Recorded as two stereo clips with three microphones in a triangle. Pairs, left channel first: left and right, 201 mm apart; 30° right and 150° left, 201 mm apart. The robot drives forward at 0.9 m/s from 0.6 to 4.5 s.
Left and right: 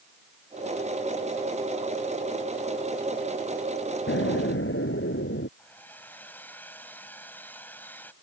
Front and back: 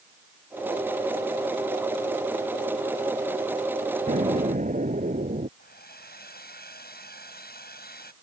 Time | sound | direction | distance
4.1 | an explosion | 100° left | ?
5.6 | a hair dryer | 10° left | ?